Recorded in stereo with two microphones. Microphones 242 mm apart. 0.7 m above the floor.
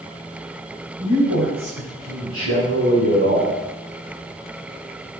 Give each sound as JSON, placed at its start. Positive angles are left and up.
{"t": 1.0, "sound": "a man speaking", "side_deg": -65, "distance_m": 4.0}